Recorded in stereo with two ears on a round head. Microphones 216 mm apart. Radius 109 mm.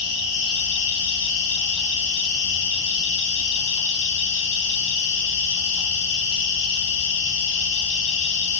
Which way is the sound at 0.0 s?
50° left (ahead or behind).